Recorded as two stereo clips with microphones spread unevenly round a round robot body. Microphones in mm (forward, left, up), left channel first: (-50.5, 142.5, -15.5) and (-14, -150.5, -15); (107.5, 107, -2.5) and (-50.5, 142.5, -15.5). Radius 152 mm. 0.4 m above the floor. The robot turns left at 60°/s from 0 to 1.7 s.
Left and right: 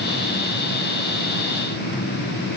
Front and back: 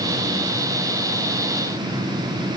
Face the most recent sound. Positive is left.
No sound to turn to.